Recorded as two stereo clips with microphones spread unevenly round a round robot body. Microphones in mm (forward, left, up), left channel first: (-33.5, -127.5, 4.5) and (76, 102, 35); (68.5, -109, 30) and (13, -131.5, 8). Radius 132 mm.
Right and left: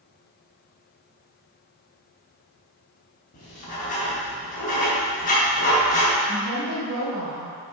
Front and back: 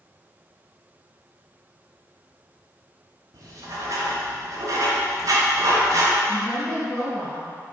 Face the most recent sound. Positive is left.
turn(degrees=100)